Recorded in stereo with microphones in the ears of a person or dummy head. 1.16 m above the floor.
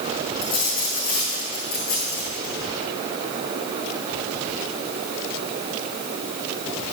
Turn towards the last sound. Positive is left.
turn(degrees=50)  # may be behind; listen again after turning